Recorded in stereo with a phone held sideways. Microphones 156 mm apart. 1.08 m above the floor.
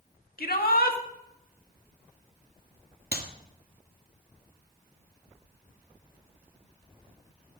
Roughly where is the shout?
Left.